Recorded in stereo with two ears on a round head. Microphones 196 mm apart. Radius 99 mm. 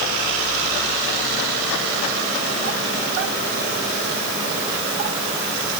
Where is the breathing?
No breathing in this recording.